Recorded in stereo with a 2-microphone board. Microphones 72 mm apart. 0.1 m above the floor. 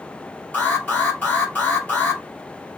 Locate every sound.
0.5 s an alarm: 25° left (ahead or behind), 1.5 m